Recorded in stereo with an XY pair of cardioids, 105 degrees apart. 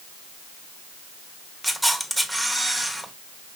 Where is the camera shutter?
5° right, 1.1 m.